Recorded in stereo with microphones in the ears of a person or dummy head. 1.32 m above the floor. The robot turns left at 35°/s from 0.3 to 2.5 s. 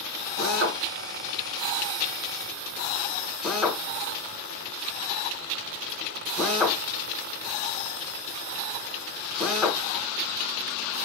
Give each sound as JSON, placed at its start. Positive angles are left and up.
{"t": 0.4, "sound": "a drill", "side_deg": -70, "distance_m": 4.5}